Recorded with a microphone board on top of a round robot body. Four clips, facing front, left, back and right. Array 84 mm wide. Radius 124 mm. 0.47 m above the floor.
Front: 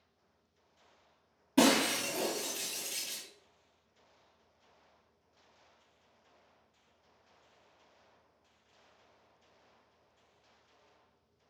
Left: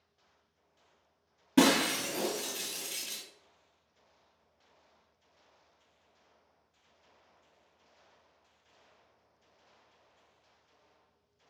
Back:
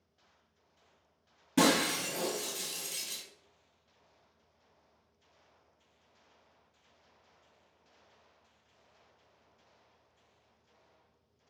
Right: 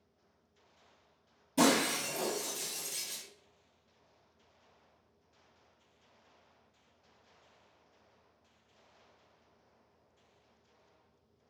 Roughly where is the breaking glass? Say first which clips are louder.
Left 3 dB, front 1 dB; left.